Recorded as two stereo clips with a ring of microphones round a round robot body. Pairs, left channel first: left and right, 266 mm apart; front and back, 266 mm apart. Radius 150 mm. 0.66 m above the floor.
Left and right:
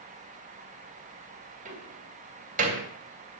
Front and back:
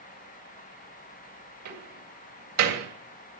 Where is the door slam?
155° right, 2.5 m.